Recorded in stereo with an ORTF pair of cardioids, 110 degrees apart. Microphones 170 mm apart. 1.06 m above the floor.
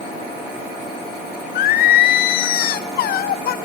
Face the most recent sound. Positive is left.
turn(degrees=65)